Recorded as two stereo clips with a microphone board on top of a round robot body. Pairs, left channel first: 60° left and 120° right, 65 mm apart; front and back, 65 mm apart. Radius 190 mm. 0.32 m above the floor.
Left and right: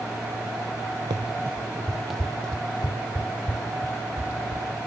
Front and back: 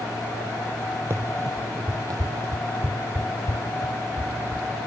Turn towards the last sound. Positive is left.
turn(degrees=125)